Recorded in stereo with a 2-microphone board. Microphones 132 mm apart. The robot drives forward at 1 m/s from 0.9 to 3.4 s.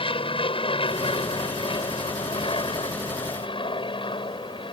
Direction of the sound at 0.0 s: 40° left (ahead or behind).